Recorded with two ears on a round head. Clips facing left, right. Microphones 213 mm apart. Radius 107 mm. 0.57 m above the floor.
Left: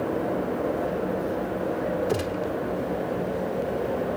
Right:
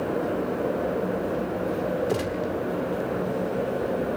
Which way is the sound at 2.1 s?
5° left (ahead or behind).